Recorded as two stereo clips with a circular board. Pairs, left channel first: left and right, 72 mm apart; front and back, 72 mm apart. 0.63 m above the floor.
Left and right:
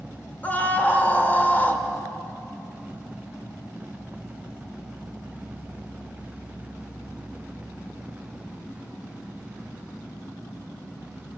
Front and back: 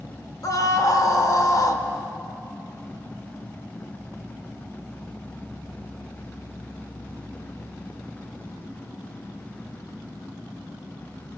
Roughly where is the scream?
Ahead left.